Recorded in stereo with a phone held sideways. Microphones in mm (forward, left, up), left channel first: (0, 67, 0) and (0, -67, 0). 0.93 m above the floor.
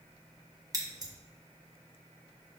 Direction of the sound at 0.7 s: 30° right (ahead or behind).